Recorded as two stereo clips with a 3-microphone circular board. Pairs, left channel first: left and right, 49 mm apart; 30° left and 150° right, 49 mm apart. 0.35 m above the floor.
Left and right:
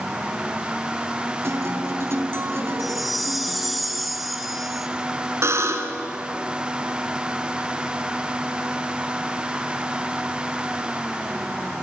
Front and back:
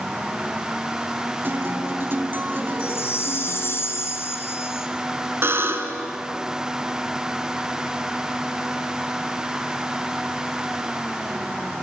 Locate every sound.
1.4 s a guitar: 110° right, 3 m
2.8 s a chime: straight ahead, 3 m
5.4 s a buzzer: 115° right, 2.5 m